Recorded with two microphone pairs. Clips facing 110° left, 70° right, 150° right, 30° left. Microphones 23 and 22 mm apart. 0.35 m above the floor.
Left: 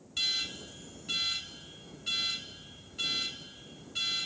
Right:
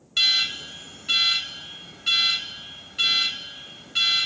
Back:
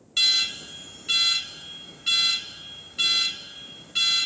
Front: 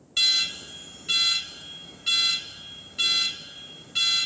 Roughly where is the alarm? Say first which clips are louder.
Right 11 dB, back 1 dB; right.